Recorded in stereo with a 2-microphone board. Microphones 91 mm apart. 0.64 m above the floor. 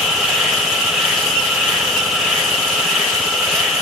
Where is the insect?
5° right (ahead or behind), 3.5 m.